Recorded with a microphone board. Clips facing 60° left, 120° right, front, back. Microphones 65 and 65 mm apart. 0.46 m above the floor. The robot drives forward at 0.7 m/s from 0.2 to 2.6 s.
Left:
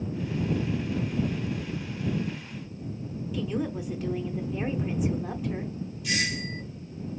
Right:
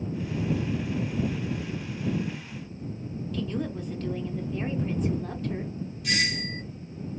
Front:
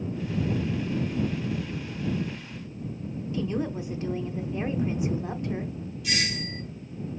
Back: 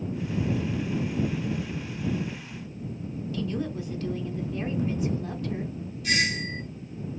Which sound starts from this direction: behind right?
A doorbell, at 6.0 s.